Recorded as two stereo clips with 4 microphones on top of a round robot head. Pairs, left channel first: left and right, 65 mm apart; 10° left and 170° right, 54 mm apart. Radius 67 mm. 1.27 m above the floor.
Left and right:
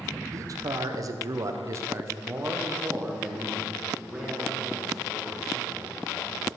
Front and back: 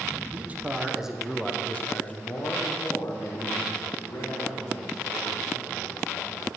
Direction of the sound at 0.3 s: 115° right.